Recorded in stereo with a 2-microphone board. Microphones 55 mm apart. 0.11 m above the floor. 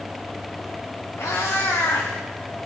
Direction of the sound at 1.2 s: 60° left (ahead or behind).